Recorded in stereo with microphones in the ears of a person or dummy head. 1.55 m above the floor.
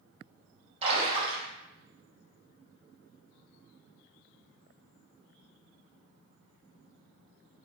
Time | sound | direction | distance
0.8 | a splash | 30° right (ahead or behind) | 2 m